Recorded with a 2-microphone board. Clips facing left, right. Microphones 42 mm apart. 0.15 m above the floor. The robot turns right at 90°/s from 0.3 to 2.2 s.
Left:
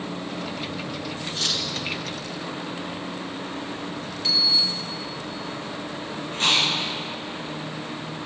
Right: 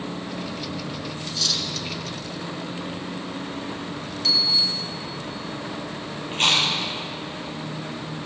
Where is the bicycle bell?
5° left (ahead or behind), 2.5 m.